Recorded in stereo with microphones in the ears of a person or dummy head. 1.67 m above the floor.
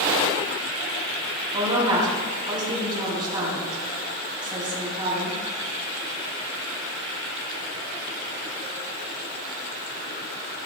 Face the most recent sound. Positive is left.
turn(degrees=-25)  # may be behind; listen again after turning